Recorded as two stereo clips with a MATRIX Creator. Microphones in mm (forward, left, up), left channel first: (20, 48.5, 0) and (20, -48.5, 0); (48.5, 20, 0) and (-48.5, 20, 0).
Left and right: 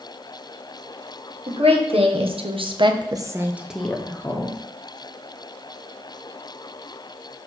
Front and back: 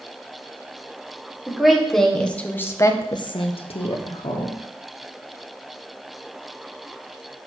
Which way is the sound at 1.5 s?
95° right.